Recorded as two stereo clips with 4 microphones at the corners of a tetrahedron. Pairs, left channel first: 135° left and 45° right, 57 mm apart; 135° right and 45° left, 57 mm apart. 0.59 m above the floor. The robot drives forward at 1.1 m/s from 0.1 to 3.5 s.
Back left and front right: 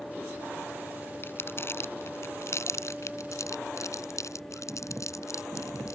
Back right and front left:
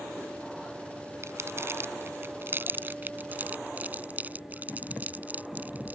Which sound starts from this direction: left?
Crumpling, at 1.2 s.